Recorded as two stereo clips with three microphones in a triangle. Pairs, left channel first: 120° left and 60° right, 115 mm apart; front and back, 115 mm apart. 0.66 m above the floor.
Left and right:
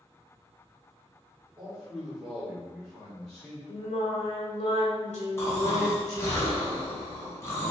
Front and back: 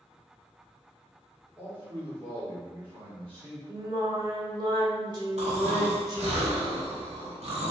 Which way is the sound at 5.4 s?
175° right.